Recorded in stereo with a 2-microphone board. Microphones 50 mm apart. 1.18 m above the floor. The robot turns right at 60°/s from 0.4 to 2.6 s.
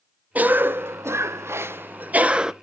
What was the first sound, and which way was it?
A cough, 140° right.